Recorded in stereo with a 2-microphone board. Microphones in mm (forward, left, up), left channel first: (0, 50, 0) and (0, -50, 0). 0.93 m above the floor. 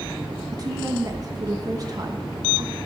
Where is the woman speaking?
40° right (ahead or behind), 1.1 m.